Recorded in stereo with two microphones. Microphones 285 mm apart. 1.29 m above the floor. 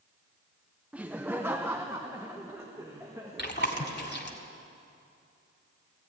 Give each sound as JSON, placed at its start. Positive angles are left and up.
{"t": 0.9, "sound": "laughter", "side_deg": -5, "distance_m": 0.6}
{"t": 3.4, "sound": "chewing", "side_deg": 40, "distance_m": 2.0}